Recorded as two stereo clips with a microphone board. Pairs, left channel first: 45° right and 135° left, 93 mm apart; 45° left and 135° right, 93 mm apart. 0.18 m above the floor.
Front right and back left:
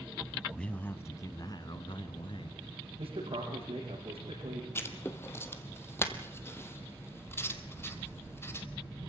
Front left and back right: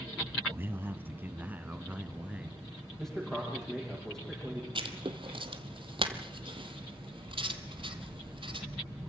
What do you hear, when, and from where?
0.5 s a man speaking: 125° right, 1.3 m; by 2.6 s 60° right, 3 m
3.0 s a man speaking: 130° left, 8 m
4.8 s writing: 110° right, 1.4 m